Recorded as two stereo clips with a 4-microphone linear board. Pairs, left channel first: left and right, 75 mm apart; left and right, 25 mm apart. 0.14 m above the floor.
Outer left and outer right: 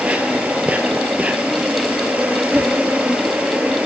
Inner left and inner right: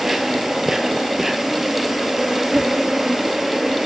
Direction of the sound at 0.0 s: 15° right (ahead or behind).